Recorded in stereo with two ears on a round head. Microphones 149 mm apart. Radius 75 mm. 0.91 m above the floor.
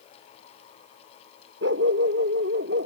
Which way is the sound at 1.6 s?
80° right.